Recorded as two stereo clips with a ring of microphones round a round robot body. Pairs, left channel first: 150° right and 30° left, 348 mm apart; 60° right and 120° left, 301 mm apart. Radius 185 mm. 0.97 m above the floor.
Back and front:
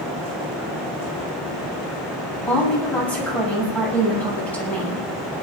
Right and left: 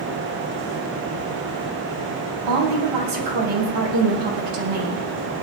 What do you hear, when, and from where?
2.5 s a woman speaking: 125° left, 7.5 m